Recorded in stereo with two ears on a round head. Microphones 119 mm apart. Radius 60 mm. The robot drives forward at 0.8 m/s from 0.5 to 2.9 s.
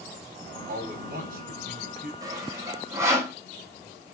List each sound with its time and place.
0.7 s a man speaking: 80° right, 4.5 m; by 2.1 s 70° right (ahead or behind), 5 m
2.2 s sawing: 30° right (ahead or behind), 2 m; by 3.4 s 25° right (ahead or behind), 2.5 m